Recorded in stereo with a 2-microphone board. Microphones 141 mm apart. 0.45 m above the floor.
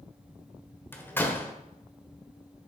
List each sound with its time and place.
0.9 s a door slam: 15° left (ahead or behind), 1.3 m